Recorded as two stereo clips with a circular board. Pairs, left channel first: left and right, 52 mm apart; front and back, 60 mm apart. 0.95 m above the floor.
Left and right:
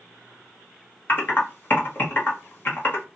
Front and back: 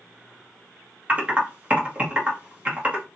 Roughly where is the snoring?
No snoring in this recording.